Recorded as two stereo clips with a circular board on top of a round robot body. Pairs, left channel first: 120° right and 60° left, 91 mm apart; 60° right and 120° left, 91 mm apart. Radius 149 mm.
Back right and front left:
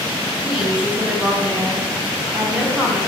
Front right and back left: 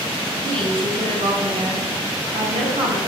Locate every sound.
0.4 s a woman speaking: 140° left, 5 m